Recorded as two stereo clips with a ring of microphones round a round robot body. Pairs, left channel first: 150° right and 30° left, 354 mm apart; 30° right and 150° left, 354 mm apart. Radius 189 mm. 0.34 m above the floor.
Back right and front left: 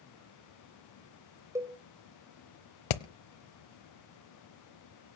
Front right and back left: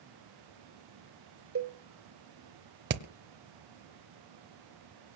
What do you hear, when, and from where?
1.6 s a cowbell: 110° left, 2 m
2.9 s hammering: 150° right, 1.0 m